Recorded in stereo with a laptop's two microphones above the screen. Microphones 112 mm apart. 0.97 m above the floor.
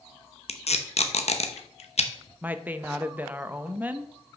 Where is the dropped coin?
No dropped coin in this recording.